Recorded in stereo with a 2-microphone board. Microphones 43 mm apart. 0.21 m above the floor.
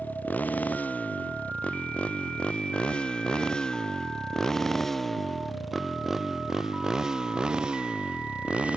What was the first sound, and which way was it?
A motorcycle, 45° left (ahead or behind).